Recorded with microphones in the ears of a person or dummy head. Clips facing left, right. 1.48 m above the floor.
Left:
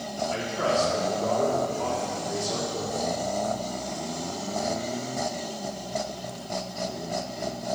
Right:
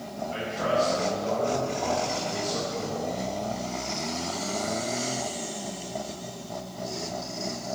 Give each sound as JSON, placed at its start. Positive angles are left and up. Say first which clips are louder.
{"t": 0.3, "sound": "a man speaking", "louder": "even", "side_deg": 85, "distance_m": 3.0}